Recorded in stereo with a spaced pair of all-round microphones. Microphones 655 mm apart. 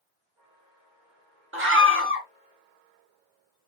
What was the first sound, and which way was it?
A scream, 20° right (ahead or behind).